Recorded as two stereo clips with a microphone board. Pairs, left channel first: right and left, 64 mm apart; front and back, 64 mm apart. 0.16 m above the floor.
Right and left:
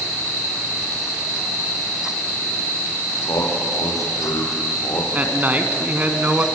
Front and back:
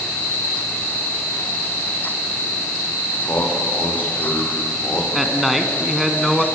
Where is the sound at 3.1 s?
60° right, 7 m.